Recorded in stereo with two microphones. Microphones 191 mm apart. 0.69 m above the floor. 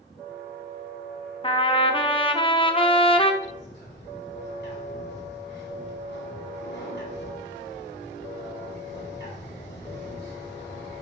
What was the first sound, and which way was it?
A trumpet, 25° left (ahead or behind).